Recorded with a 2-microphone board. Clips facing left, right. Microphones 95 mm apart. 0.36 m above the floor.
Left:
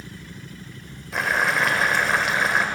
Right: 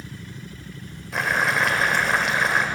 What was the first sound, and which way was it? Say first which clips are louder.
Boiling: even; centre (ahead or behind).